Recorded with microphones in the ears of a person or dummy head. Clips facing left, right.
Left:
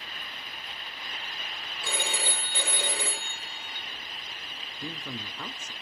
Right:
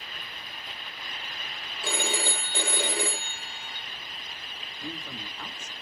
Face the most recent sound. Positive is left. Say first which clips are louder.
# left 1 dB
turn(degrees=80)